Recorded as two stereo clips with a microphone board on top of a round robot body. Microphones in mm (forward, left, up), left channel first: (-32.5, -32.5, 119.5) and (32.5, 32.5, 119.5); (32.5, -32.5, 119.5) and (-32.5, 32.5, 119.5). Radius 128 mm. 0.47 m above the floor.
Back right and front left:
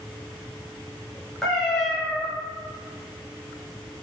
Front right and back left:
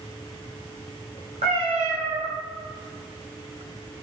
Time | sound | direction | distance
1.4 | a cat meowing | 140° left | 0.6 m